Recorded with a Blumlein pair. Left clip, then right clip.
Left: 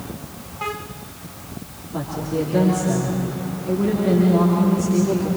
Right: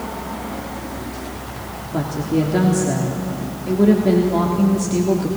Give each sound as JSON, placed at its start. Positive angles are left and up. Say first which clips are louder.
{"t": 1.9, "sound": "a woman speaking", "louder": "right 3 dB", "azimuth_deg": -15, "distance_m": 3.0}